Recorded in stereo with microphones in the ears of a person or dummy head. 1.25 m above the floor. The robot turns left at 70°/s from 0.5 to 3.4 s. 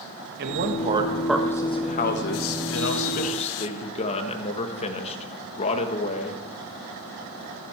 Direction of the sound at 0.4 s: 120° right.